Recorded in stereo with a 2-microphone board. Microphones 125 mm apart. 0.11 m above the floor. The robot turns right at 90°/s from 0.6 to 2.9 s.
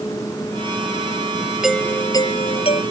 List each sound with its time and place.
1.6 s a doorbell: 5° right; by 2.8 s 100° left